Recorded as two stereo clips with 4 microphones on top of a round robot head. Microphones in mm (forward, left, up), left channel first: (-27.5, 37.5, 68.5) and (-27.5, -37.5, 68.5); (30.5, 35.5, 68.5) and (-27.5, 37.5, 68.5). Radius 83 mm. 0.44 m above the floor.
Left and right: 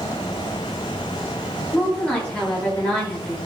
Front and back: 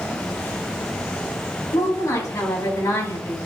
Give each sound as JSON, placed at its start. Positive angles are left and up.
{"t": 1.7, "sound": "a woman speaking", "azimuth_deg": 15, "distance_m": 4.5}